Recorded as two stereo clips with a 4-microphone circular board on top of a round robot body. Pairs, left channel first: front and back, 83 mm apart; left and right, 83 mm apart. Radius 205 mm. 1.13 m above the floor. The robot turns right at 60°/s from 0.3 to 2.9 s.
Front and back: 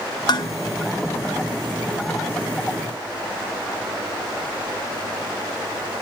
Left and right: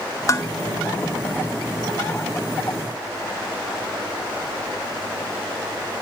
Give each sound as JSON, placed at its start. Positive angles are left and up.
{"t": 0.3, "sound": "dishes clattering", "azimuth_deg": 35, "distance_m": 0.5}